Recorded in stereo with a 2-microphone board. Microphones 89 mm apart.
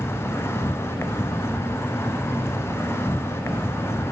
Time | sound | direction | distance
0.0 | an insect | 30° left (ahead or behind) | 0.7 m